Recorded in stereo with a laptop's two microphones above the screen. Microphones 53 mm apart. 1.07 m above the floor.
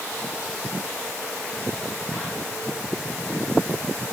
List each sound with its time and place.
Only background noise.